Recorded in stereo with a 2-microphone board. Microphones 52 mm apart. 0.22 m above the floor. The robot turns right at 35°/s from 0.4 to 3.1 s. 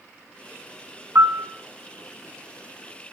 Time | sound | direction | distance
1.1 | a piano | 55° right (ahead or behind) | 1.3 m